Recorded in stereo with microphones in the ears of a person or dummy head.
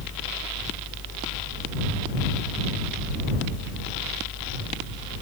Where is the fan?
60° left (ahead or behind).